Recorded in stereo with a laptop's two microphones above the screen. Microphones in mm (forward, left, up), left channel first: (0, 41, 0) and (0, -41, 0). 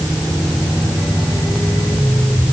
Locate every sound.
Only background noise.